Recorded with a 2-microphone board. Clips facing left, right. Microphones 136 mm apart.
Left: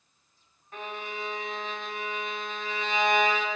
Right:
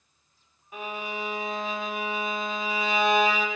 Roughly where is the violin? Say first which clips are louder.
Right 3 dB; centre.